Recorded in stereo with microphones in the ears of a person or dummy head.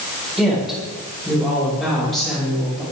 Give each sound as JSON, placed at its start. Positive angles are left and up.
{"t": 0.4, "sound": "a woman speaking", "side_deg": 0, "distance_m": 8.0}